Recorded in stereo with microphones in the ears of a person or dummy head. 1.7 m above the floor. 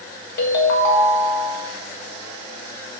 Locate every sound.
0.4 s a ringtone: 55° left (ahead or behind), 1.5 m